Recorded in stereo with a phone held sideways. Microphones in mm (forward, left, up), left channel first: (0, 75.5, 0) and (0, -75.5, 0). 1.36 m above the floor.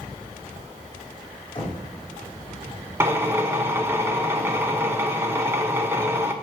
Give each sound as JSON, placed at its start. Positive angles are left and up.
{"t": 1.6, "sound": "knocking", "side_deg": 35, "distance_m": 2.5}
{"t": 3.0, "sound": "a drill", "side_deg": -15, "distance_m": 0.7}